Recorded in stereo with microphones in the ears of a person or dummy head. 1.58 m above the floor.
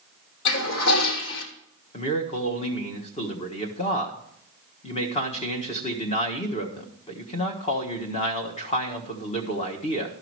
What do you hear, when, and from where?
0.5 s a toilet flushing: 75° left (ahead or behind), 2.5 m
1.9 s a man speaking: 30° left (ahead or behind), 1.2 m